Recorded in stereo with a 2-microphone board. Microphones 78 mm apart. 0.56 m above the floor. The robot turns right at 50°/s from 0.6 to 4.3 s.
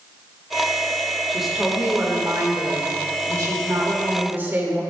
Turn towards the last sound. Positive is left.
turn(degrees=-35)